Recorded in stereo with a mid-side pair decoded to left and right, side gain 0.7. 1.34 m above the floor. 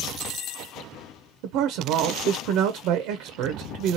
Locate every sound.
1.4 s a man speaking: 65° right, 0.7 m